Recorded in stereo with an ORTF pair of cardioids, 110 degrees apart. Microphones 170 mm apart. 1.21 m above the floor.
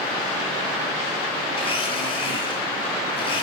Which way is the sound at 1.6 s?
30° left.